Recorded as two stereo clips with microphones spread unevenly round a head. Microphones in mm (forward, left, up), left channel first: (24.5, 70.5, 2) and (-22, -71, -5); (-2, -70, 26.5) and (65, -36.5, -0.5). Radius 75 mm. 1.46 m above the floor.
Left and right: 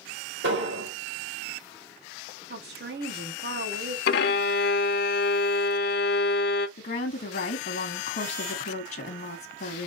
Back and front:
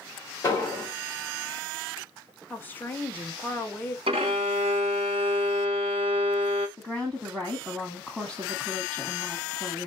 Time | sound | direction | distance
0.4 | an explosion | 95° right | 2.5 m
2.5 | a woman speaking | 85° right | 1.6 m
4.1 | a violin | 85° left | 0.6 m
6.8 | a woman speaking | 105° left | 0.8 m